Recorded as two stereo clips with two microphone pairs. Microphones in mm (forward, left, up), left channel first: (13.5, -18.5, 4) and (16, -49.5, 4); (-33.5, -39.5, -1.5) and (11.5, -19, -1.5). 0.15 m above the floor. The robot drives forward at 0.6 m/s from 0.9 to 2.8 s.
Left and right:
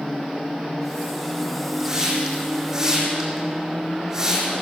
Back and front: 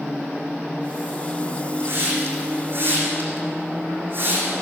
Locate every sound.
1.8 s a hiss: 10° right, 8.5 m